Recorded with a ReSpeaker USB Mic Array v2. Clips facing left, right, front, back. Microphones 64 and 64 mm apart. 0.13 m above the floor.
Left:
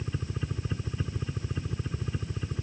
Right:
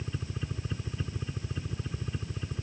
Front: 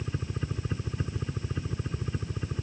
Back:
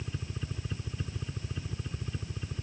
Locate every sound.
0.0 s a helicopter: 25° left